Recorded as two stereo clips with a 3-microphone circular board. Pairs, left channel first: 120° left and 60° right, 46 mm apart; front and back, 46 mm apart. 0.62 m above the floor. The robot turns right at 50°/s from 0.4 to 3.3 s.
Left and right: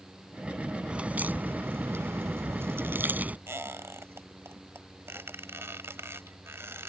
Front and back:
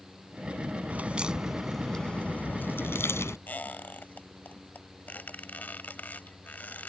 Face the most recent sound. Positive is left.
turn(degrees=-45)